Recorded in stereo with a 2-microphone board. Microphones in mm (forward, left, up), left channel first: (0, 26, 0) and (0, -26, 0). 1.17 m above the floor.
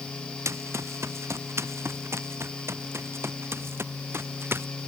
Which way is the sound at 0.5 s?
65° right (ahead or behind).